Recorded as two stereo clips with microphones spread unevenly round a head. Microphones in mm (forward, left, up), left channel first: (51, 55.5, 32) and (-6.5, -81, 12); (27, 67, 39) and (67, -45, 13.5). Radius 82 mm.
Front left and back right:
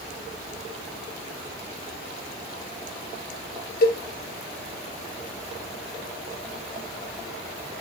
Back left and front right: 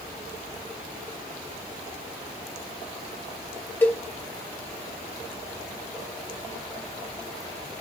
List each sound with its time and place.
3.8 s a cowbell: 35° left, 2 m